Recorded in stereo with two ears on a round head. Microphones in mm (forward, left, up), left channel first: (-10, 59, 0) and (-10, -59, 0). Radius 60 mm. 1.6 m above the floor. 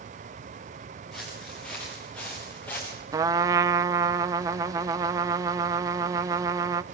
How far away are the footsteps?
About 8.5 m.